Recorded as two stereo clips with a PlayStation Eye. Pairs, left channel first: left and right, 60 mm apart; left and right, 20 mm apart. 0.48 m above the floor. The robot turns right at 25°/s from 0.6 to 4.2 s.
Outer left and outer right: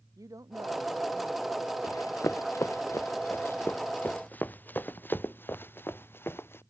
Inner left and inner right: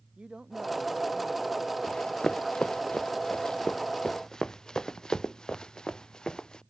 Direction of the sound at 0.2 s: 70° right (ahead or behind).